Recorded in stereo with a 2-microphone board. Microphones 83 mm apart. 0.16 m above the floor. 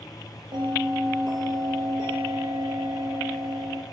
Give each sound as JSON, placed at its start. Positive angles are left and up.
{"t": 0.5, "sound": "a bell", "side_deg": -65, "distance_m": 2.5}